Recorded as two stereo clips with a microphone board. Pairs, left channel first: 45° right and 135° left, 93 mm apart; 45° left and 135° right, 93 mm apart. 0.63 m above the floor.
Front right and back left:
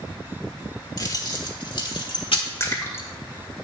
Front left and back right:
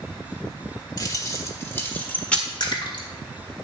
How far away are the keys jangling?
About 1.4 m.